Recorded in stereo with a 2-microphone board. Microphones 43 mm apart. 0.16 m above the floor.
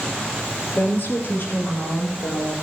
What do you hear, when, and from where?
0.8 s a woman speaking: 40° left (ahead or behind), 3 m; by 2.5 s 60° left (ahead or behind), 4.5 m